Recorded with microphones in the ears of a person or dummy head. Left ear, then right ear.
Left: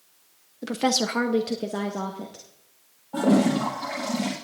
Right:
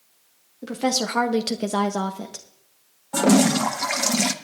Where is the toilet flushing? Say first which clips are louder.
Right 3 dB; 70° right (ahead or behind), 1.1 m.